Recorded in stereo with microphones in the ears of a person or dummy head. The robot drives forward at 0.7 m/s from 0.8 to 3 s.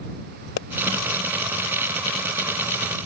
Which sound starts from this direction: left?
A pop, at 0.6 s.